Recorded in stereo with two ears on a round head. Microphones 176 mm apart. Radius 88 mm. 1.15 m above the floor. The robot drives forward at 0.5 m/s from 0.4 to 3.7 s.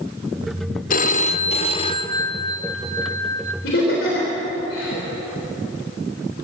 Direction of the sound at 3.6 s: 60° left (ahead or behind).